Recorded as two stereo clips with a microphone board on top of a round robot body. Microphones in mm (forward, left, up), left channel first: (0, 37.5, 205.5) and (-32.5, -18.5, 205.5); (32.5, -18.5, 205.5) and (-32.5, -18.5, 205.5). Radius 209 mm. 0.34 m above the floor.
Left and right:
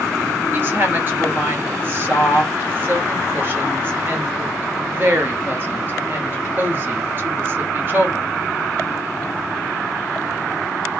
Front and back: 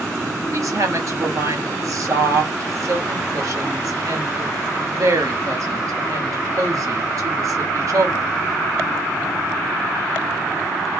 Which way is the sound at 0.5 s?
170° right.